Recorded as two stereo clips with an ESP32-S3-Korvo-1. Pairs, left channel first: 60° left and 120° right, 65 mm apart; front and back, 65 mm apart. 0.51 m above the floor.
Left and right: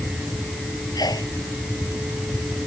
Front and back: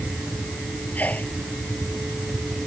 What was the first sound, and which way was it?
A sneeze, 65° left.